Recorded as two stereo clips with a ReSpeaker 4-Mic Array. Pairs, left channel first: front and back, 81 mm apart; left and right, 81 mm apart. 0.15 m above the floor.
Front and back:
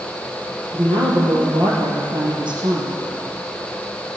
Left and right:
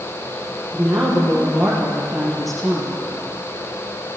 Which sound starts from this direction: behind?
A woman speaking, at 0.7 s.